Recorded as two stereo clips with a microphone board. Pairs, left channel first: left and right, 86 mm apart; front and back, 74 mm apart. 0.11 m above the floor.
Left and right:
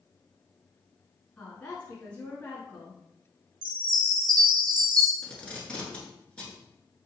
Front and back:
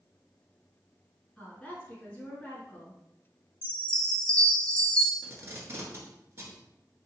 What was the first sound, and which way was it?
A woman speaking, 50° left.